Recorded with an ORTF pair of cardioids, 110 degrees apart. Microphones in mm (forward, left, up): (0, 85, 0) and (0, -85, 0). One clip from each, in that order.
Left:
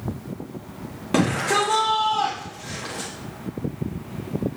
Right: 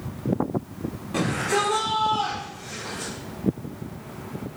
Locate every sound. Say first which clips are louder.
1.1 s a shout: left 3 dB; 65° left, 1.3 m